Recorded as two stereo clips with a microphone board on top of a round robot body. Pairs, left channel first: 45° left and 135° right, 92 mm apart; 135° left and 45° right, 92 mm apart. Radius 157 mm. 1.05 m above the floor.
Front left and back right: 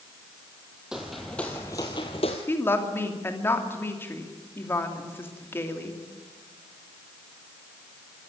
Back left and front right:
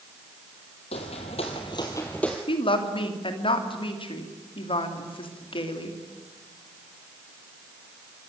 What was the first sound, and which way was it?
Footsteps, 140° left.